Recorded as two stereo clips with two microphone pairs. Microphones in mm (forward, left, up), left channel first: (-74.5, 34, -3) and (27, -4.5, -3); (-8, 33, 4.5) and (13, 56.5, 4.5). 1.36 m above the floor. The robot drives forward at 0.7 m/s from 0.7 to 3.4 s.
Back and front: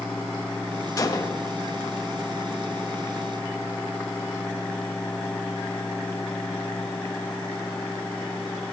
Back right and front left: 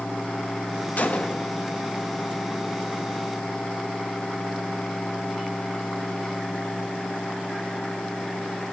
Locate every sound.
1.0 s a gunshot: 150° right, 0.9 m; by 1.5 s 160° right, 1.2 m